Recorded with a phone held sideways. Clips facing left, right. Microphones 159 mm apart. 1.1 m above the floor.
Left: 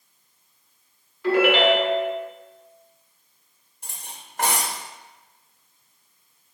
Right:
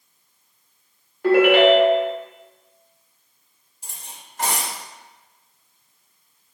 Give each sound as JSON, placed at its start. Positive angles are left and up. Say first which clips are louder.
{"t": 1.2, "sound": "a ringtone", "louder": "right 5 dB", "side_deg": -50, "distance_m": 1.0}
{"t": 3.8, "sound": "cutlery clinking", "louder": "left 1 dB", "side_deg": 60, "distance_m": 0.7}